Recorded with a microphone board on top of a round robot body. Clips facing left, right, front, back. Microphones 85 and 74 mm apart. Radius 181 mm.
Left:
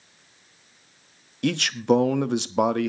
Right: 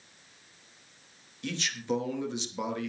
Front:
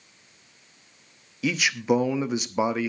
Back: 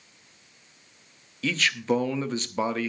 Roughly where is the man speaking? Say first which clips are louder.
Left 11 dB, front 2 dB; left.